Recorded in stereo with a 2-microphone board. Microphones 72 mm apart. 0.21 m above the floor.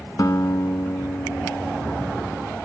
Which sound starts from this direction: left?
A guitar, at 0.2 s.